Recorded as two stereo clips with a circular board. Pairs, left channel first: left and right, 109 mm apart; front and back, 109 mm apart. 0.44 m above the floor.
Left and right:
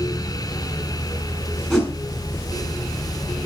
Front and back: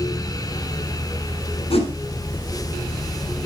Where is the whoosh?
5° right, 3.5 m.